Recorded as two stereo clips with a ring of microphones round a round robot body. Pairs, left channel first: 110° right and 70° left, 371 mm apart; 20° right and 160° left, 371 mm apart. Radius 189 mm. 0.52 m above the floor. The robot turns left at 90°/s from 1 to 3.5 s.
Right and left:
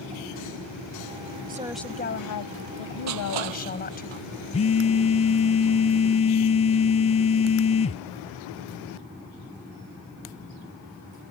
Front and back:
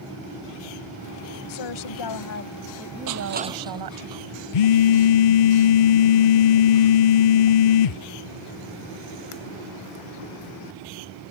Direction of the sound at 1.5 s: 5° left.